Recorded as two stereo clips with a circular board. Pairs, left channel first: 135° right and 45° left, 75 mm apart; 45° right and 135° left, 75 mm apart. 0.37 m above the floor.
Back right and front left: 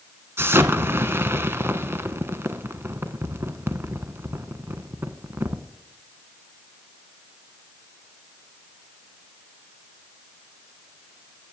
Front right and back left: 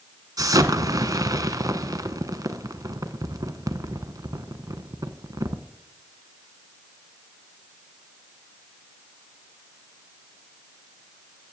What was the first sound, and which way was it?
An explosion, 100° left.